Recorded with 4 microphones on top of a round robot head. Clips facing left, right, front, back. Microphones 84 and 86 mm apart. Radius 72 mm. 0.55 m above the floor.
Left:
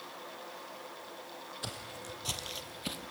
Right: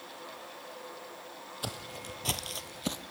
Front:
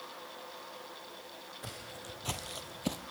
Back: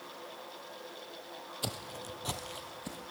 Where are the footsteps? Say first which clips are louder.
Right 5 dB, back 6 dB; 150° right, 0.9 m; by 3.0 s 30° right, 0.8 m.